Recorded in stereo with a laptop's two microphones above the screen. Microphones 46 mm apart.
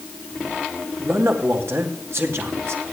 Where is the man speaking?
70° right (ahead or behind), 2.5 m.